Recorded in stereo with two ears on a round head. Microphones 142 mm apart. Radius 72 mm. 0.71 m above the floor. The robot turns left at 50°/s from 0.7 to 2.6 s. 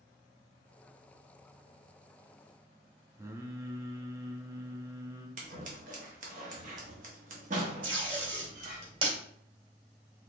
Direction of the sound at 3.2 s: 20° right (ahead or behind).